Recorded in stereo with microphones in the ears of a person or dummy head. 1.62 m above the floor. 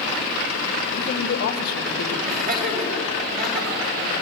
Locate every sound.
0.9 s a man speaking: 55° left (ahead or behind), 1.9 m
2.2 s laughter: 45° right (ahead or behind), 5 m